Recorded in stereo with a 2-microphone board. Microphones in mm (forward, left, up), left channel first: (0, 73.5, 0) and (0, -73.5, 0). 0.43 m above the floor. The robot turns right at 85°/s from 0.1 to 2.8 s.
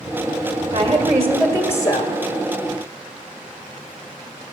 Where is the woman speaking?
65° right, 1.4 m; by 2.2 s 60° left, 1.4 m.